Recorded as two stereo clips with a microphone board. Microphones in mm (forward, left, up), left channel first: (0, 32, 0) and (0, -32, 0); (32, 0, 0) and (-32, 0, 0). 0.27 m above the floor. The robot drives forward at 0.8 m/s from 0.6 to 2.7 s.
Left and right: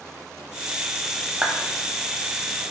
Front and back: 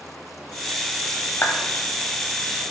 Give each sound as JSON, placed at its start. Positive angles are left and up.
{"t": 1.4, "sound": "a clap", "azimuth_deg": -25, "distance_m": 0.9}